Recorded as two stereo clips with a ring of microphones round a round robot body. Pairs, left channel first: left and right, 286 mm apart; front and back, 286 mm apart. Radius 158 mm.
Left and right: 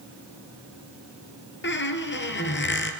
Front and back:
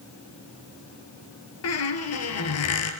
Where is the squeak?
35° left, 3 m.